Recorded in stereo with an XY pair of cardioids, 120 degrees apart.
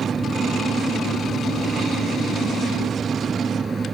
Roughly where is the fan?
Ahead right.